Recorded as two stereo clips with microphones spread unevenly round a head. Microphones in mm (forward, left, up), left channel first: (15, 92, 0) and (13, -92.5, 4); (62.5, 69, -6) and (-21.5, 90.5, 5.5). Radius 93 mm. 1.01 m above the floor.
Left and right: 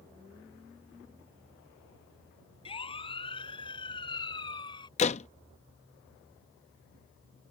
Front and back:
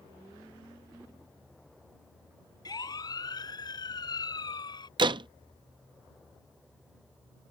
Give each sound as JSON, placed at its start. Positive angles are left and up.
{"t": 2.6, "sound": "a siren", "azimuth_deg": 25}
{"t": 5.0, "sound": "a door slam", "azimuth_deg": 145}